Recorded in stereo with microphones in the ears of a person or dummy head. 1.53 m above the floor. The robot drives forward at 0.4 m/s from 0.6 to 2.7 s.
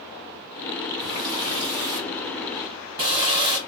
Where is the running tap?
15° right (ahead or behind), 2.0 m; by 3.6 s 25° right (ahead or behind), 1.4 m.